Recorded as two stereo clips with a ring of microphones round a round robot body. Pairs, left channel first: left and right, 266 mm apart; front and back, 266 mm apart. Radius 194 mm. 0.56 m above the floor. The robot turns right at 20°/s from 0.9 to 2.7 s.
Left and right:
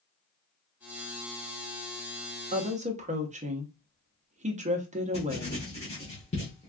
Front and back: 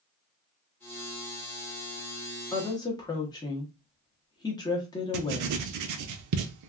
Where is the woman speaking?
65° right, 0.8 m; by 5.7 s 60° right, 0.8 m.